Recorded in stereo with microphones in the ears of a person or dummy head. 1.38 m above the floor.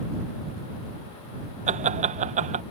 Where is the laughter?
35° right (ahead or behind).